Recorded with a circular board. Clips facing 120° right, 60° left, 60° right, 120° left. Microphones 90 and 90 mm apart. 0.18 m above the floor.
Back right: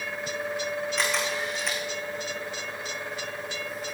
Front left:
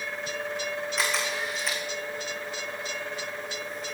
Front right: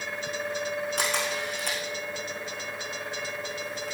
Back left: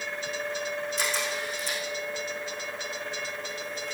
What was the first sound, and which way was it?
A camera shutter, 30° right.